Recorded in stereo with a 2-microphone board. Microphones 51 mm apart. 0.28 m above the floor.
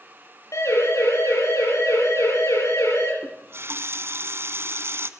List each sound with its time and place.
0.5 s a siren: 80° left, 10 m
3.2 s a running tap: 55° right (ahead or behind), 1.5 m